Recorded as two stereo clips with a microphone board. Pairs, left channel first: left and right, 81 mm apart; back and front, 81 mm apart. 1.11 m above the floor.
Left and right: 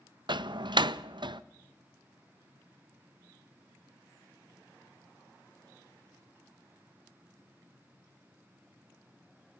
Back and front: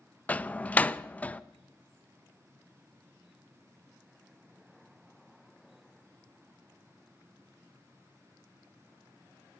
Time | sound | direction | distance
0.3 | a door slam | 105° right | 0.5 m